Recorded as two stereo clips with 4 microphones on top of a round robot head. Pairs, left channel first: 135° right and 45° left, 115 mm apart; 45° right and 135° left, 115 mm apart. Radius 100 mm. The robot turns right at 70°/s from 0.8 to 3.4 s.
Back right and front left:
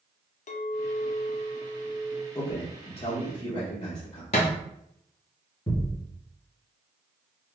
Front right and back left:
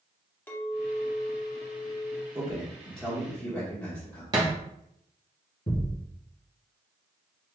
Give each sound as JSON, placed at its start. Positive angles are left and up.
{"t": 0.5, "sound": "a clink", "azimuth_deg": -120, "distance_m": 0.5}
{"t": 2.4, "sound": "a man speaking", "azimuth_deg": -175, "distance_m": 1.0}
{"t": 4.3, "sound": "a thud", "azimuth_deg": -170, "distance_m": 0.7}
{"t": 5.7, "sound": "a thud", "azimuth_deg": -80, "distance_m": 1.8}